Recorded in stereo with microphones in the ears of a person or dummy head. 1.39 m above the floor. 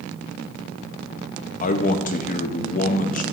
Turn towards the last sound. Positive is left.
turn(degrees=45)  # may be behind; listen again after turning